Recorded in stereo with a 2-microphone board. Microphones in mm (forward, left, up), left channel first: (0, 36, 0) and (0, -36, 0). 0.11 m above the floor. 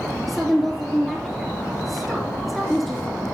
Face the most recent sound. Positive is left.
turn(degrees=0)  # may be behind; listen again after turning